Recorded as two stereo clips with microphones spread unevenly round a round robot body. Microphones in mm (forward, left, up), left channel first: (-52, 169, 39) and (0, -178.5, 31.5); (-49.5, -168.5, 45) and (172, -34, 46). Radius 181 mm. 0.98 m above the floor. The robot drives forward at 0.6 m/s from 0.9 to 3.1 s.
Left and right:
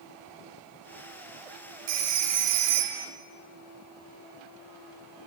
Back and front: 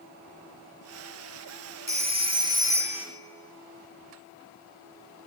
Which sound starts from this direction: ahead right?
A phone ringing, at 1.9 s.